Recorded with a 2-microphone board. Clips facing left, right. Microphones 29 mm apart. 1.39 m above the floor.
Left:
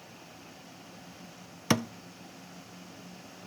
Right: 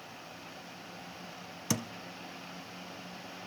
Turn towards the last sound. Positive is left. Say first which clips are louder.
# left 7 dB
turn(degrees=40)  # may be behind; listen again after turning